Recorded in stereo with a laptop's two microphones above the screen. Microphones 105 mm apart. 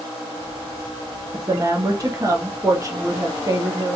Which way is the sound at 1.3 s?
35° right (ahead or behind).